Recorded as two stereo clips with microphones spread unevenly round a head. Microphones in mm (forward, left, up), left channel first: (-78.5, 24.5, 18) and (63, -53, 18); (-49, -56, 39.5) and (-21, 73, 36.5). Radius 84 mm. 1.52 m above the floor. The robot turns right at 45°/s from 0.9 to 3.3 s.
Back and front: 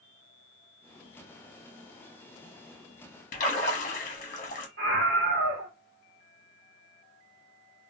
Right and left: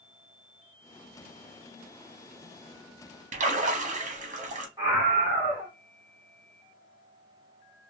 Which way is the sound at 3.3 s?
105° left.